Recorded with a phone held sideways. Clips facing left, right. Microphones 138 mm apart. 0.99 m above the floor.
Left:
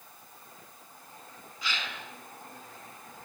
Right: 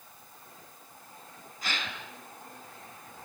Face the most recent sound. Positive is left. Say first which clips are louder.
# even
turn(degrees=-45)  # may be behind; listen again after turning